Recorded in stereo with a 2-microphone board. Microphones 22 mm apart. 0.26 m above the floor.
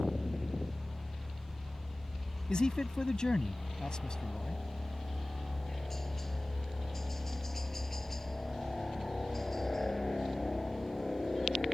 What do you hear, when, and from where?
0.0 s a helicopter: 5° left (ahead or behind); by 11.8 s 10° left (ahead or behind)
2.5 s a man speaking: 40° left (ahead or behind)